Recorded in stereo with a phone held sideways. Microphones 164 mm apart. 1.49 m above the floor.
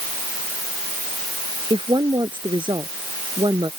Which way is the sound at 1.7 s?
30° right (ahead or behind).